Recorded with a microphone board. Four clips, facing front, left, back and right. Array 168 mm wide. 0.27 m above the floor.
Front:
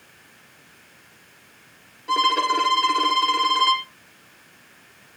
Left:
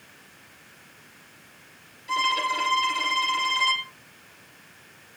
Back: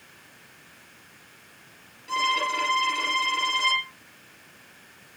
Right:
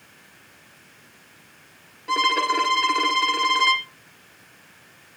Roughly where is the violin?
Ahead right.